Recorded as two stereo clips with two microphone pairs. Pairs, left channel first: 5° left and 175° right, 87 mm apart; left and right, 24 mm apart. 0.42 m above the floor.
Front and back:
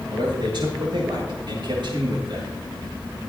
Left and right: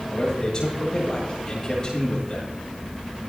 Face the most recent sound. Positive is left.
turn(degrees=155)